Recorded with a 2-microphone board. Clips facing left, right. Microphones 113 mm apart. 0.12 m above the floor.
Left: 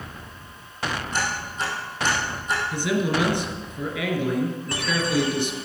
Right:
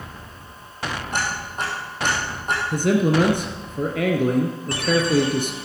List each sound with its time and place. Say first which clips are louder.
1.1 s ticking: right 1 dB; 50° right (ahead or behind), 4.5 m
2.7 s a man speaking: right 6 dB; 45° right (ahead or behind), 1.8 m